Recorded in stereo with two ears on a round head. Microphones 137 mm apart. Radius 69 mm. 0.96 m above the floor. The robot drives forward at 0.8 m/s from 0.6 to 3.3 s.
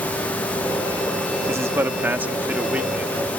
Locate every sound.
1.5 s a man speaking: 20° right (ahead or behind); by 3.2 s 10° right (ahead or behind)